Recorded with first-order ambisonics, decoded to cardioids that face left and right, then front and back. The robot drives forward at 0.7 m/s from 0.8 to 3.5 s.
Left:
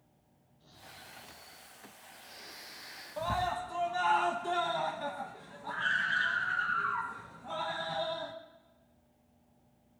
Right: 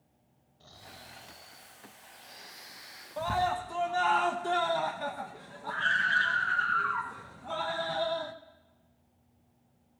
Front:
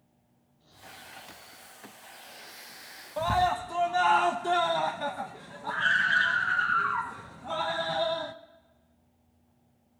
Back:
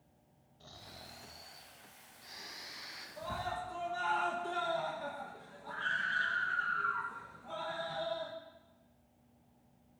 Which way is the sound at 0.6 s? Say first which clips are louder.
Right 2 dB, front 3 dB; 135° right.